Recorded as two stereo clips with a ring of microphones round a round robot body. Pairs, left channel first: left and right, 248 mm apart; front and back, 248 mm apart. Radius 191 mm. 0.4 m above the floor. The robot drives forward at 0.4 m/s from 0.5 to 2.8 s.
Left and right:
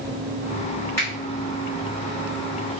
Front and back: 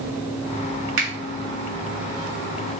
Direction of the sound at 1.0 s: 170° left.